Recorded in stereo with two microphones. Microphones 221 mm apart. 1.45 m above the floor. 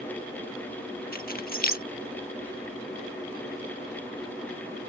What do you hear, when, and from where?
1.1 s keys jangling: 40° left (ahead or behind)